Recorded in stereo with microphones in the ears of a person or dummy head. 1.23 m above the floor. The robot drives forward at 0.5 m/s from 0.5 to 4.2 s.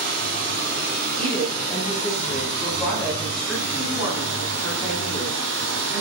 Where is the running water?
55° right (ahead or behind), 3.5 m; by 6.0 s 75° right (ahead or behind), 3 m.